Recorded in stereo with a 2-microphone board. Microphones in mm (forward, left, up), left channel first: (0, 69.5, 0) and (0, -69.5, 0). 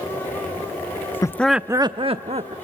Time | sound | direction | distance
1.2 | laughter | 20° left (ahead or behind) | 0.6 m